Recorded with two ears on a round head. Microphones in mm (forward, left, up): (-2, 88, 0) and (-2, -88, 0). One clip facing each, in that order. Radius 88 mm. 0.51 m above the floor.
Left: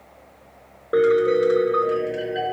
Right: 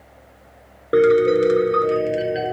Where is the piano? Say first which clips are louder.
Right 3 dB; 30° right (ahead or behind), 0.7 m.